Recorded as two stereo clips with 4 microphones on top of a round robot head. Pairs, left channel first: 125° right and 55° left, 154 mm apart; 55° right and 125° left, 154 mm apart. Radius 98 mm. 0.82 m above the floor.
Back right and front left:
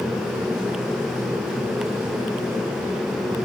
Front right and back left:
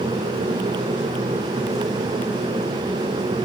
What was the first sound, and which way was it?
Only background noise.